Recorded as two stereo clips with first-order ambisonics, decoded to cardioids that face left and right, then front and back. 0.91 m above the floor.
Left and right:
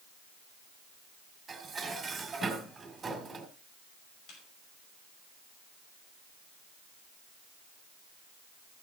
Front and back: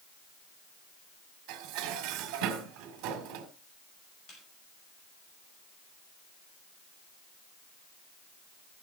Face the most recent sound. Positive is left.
turn(degrees=55)